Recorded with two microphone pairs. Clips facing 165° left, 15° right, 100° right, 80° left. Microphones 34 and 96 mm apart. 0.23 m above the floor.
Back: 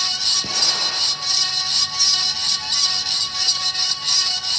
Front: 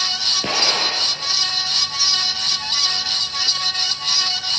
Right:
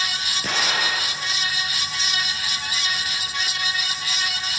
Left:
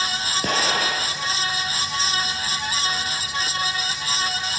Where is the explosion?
35° left, 4 m.